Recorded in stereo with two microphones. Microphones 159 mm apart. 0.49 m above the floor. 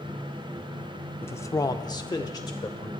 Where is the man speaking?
15° left (ahead or behind), 0.8 m; by 2.9 s 20° left (ahead or behind), 1.5 m.